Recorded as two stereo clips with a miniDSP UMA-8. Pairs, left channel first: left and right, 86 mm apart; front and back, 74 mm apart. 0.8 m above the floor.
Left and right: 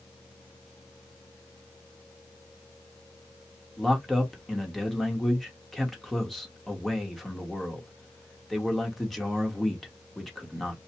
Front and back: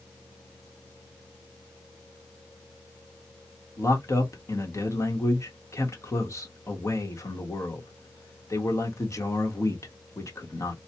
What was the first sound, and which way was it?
A man speaking, 5° left.